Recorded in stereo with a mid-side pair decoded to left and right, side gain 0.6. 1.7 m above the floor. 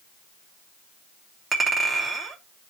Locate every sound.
1.5 s a clink: 25° right, 3 m